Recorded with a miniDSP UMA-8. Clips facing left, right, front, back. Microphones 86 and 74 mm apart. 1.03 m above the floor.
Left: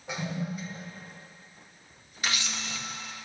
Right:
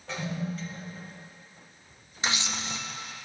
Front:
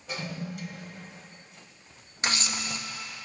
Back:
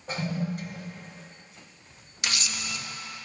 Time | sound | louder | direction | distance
0.1 | a toilet flushing | even, back 5 dB | 155° left | 1.0 m
2.2 | a camera shutter | right 2 dB, front 2 dB | 40° right | 0.6 m